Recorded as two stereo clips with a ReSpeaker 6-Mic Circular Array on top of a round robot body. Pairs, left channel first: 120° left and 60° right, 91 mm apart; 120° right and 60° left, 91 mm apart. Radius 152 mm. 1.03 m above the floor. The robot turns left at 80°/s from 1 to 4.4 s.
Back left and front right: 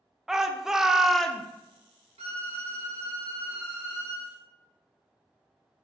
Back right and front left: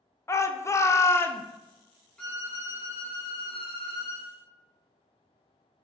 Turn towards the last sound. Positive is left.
turn(degrees=145)